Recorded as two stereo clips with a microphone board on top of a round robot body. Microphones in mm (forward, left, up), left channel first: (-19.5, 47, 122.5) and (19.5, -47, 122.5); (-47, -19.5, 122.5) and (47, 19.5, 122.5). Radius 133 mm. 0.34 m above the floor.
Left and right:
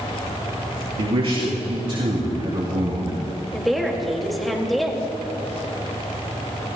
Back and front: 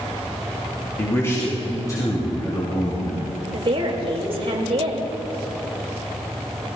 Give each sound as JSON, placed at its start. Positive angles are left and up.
{"t": 1.0, "sound": "a man speaking", "azimuth_deg": -95, "distance_m": 4.0}
{"t": 3.5, "sound": "a woman speaking", "azimuth_deg": 25, "distance_m": 2.5}